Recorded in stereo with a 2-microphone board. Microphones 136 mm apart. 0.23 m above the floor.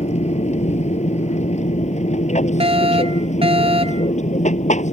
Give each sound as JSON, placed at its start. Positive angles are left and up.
{"t": 0.0, "sound": "an aircraft", "side_deg": 55}
{"t": 2.6, "sound": "a fire alarm", "side_deg": -45}